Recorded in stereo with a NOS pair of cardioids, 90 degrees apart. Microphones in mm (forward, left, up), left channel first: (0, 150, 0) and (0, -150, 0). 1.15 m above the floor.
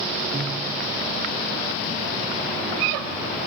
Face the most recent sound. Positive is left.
turn(degrees=-25)